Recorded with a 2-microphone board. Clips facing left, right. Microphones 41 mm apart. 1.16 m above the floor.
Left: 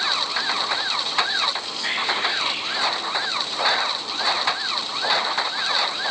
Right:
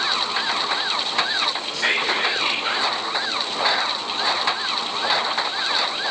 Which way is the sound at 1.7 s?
75° right (ahead or behind).